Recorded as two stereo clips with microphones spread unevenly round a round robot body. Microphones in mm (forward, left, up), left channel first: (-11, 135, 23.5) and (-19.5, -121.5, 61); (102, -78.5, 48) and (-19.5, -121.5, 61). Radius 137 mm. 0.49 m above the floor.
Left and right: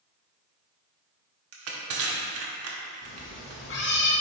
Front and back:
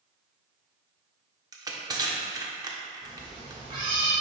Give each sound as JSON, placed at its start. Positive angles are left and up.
{"t": 1.5, "sound": "crushing", "azimuth_deg": -100, "distance_m": 1.4}
{"t": 3.0, "sound": "a cat meowing", "azimuth_deg": 135, "distance_m": 2.0}